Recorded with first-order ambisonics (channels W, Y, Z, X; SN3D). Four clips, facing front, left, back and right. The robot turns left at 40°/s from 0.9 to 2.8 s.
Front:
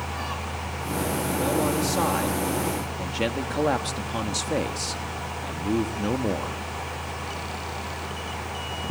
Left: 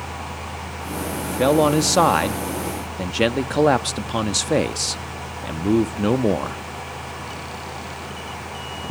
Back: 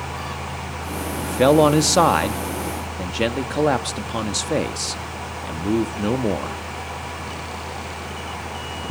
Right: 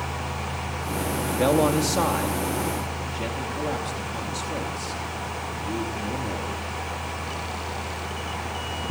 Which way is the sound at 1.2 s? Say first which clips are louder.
Left 4 dB, back 12 dB; 175° left.